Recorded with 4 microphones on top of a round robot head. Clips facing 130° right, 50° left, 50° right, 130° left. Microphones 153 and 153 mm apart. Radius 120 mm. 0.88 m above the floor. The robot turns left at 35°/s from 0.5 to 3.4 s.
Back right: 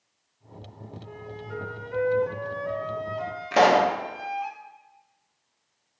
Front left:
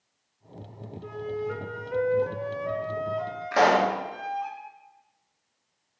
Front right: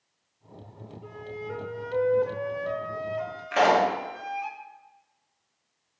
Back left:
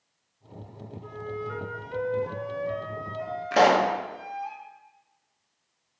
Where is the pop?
165° left, 1.2 m.